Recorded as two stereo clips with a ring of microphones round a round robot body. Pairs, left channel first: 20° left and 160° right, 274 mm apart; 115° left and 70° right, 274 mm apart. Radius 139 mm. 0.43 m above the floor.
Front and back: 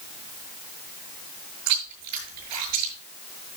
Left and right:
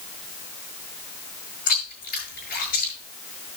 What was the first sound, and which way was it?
Chewing, 175° left.